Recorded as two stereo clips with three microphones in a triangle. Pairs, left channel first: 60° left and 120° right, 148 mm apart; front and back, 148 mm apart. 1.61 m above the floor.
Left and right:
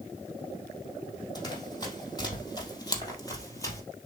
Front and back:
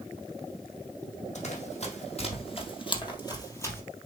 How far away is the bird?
No bird in this recording.